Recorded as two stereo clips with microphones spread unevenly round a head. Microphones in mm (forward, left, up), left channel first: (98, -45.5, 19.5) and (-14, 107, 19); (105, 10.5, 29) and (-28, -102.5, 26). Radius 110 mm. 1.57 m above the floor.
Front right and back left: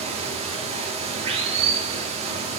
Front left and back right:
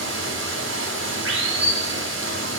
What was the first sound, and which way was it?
Running water, 170° right.